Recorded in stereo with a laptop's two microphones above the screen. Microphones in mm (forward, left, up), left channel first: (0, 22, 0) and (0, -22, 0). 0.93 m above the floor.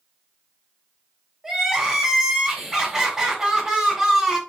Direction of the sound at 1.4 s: 10° right (ahead or behind).